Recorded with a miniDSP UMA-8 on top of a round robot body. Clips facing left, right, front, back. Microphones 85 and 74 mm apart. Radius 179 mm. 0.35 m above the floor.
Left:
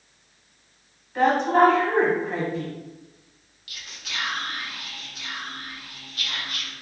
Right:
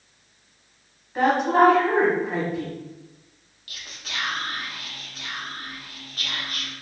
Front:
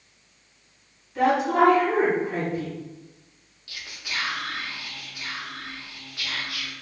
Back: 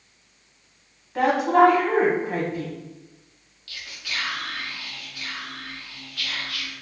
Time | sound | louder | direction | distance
1.1 | a woman speaking | even, back 3 dB | 175° right | 1.2 m
3.7 | whispering | right 1 dB, even | 60° right | 1.0 m